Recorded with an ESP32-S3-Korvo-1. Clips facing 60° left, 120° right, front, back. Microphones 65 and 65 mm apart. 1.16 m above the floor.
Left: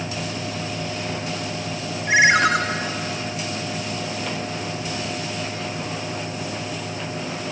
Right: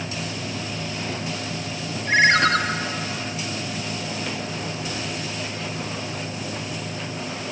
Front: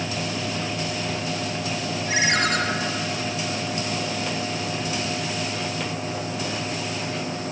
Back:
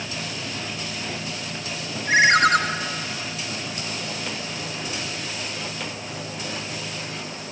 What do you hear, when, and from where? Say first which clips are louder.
2.1 s a ringtone: left 1 dB, back 7 dB; 140° left, 1.7 m